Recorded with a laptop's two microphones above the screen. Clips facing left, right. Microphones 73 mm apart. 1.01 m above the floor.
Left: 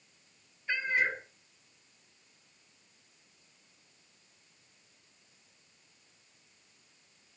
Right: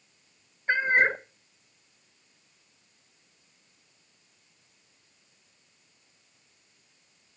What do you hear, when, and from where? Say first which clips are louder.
0.7 s a cat meowing: right 8 dB; 45° right (ahead or behind), 0.7 m